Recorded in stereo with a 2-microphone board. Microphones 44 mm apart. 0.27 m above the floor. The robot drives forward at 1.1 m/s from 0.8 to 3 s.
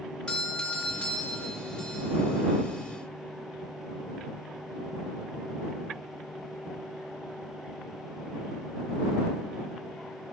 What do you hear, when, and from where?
0.3 s a doorbell: 15° left (ahead or behind), 1.5 m; by 2.1 s 10° left (ahead or behind), 2.5 m